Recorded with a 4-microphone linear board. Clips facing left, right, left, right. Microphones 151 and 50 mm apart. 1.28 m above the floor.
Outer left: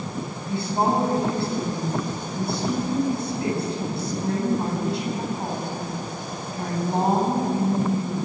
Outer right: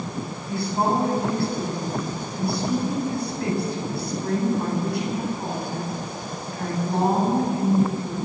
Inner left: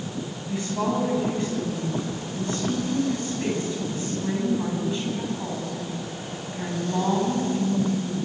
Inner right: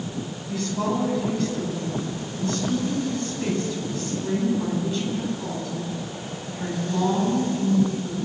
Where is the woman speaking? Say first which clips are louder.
Even, even; 20° left (ahead or behind), 9.5 m.